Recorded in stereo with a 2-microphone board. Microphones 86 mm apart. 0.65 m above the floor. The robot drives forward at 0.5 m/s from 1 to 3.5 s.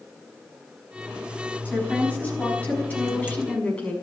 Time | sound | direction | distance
1.6 | a woman speaking | 20° left (ahead or behind) | 5 m